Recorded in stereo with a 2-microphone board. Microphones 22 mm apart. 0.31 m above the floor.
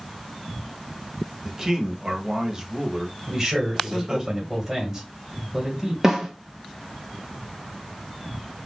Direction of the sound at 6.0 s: 25° right (ahead or behind).